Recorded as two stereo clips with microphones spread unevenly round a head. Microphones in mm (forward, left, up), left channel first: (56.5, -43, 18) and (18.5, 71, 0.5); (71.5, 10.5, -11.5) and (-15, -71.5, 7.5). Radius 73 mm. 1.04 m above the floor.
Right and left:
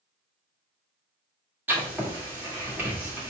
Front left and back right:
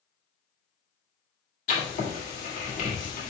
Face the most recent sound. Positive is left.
turn(degrees=35)